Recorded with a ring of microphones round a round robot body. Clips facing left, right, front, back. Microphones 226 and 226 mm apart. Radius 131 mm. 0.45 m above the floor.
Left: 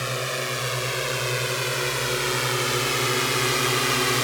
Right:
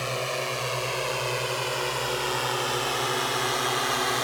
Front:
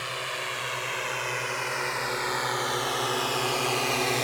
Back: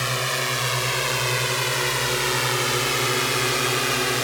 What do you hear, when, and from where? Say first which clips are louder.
0.0 s a drone: left 1 dB, back 8 dB; 160° left; by 4.2 s 110° left